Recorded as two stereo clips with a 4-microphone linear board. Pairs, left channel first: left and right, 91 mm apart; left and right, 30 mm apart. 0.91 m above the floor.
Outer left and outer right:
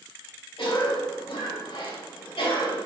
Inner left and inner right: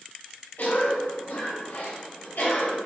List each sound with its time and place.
0.6 s a cough: 70° left (ahead or behind), 3 m